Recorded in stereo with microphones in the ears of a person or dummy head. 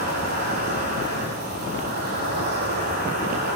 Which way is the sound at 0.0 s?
50° right (ahead or behind).